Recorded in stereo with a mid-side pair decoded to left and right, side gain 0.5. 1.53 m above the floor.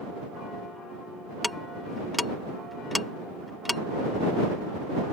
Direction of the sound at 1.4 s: 10° left.